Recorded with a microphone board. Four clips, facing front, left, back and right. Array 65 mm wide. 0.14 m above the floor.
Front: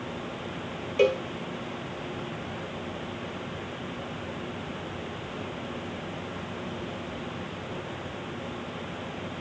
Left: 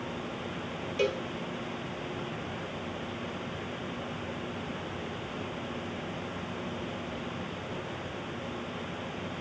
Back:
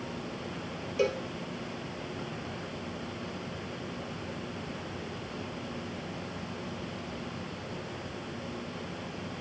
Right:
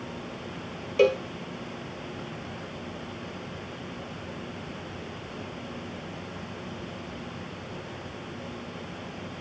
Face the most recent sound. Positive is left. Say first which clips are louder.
# right 8 dB, front 6 dB
turn(degrees=-70)